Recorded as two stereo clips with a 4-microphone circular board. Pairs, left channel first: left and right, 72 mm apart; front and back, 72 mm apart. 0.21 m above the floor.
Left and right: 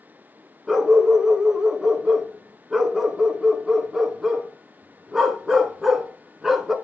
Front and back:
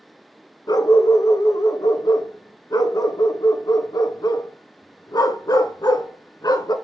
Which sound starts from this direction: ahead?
A dog barking, at 0.7 s.